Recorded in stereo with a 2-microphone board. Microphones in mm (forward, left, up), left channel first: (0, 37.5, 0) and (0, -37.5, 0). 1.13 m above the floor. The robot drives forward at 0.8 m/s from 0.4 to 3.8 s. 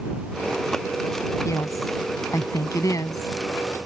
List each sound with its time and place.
1.4 s a woman speaking: 45° left (ahead or behind); by 3.3 s 50° left (ahead or behind)